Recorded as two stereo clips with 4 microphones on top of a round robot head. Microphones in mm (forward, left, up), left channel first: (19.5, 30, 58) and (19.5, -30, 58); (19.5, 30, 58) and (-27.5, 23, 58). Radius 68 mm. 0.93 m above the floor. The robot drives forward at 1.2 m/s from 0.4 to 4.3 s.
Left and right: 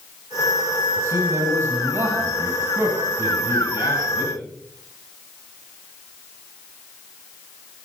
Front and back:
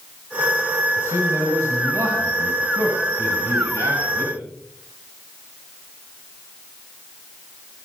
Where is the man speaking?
135° right, 6.5 m; by 4.3 s 150° right, 9.5 m.